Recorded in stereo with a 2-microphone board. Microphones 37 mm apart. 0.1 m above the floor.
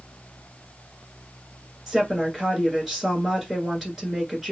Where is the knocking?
I don't hear knocking.